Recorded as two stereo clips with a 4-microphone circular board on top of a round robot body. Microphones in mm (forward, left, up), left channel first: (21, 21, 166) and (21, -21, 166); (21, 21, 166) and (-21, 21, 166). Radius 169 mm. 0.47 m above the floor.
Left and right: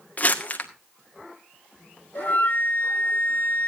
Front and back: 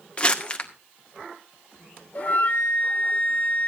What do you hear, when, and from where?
0.2 s crumpling: 55° left, 1.9 m
2.1 s a flute: 50° left, 2.5 m